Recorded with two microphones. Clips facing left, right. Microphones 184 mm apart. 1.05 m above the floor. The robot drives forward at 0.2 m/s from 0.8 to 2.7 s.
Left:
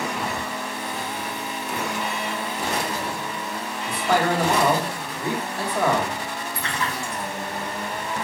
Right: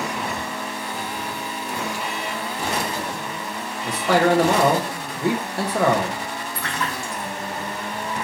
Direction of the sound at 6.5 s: 20° left (ahead or behind).